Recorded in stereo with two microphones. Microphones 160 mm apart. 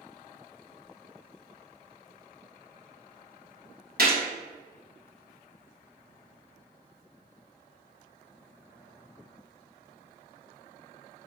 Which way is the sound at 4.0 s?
65° right (ahead or behind).